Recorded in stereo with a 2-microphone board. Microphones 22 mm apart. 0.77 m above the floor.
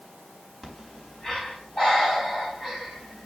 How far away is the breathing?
About 4.5 m.